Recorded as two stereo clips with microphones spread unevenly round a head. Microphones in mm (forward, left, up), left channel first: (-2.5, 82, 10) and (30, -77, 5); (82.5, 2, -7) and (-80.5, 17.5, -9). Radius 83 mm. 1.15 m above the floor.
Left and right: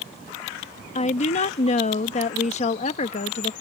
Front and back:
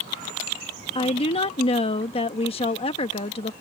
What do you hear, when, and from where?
0.9 s a woman speaking: 50° left